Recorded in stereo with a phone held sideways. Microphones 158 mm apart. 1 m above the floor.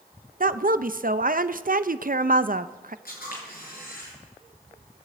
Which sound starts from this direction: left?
A camera shutter, at 3.0 s.